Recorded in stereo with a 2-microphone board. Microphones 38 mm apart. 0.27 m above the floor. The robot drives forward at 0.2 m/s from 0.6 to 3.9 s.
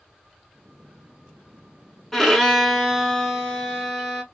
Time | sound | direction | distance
2.1 | a violin | 5° left (ahead or behind) | 0.7 m